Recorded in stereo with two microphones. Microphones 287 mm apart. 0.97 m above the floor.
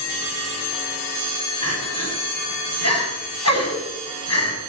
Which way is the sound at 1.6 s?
60° left (ahead or behind).